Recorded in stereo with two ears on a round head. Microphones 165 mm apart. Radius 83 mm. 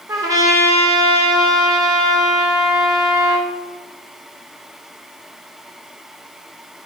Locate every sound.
0.1 s a trumpet: 20° right (ahead or behind), 4 m